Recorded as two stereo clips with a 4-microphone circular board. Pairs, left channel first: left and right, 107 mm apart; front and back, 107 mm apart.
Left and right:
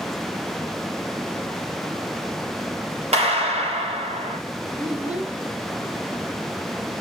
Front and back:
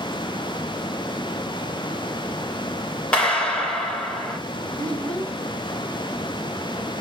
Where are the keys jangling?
I don't hear keys jangling.